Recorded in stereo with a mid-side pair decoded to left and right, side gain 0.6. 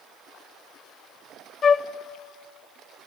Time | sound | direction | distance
1.6 | a flute | 35° left | 0.6 m